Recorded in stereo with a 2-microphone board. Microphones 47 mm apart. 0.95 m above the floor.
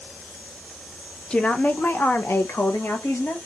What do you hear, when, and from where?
1.3 s a woman speaking: 20° left (ahead or behind), 0.6 m; by 3.4 s 65° left (ahead or behind), 1.3 m